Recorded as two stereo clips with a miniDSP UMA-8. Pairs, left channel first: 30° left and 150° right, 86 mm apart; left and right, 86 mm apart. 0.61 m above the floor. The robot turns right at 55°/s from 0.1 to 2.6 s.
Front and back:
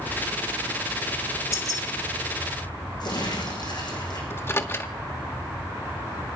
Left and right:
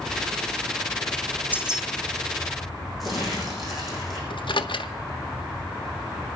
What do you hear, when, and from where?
1.5 s keys jangling: 20° right, 1.7 m; by 1.8 s straight ahead, 1.7 m
3.0 s crumpling: straight ahead, 6.5 m
4.3 s a microwave: 90° left, 1.1 m